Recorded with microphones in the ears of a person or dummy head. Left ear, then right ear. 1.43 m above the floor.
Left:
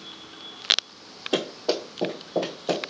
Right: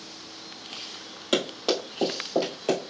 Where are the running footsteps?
50° right (ahead or behind), 2.5 m; by 2.9 s 30° right (ahead or behind), 1.8 m.